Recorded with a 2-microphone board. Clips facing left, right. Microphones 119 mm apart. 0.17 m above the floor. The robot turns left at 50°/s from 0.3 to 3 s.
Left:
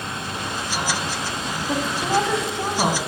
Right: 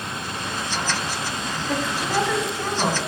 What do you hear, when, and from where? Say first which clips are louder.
1.7 s a woman speaking: left 3 dB; 20° left (ahead or behind), 1.0 m